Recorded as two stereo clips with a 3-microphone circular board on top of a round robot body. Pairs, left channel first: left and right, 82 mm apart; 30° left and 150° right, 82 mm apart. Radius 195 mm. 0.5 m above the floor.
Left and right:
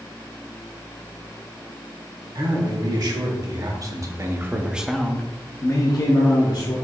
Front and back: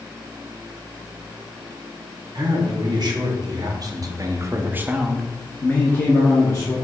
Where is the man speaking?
120° right, 1.7 m; by 6.8 s 75° left, 1.2 m.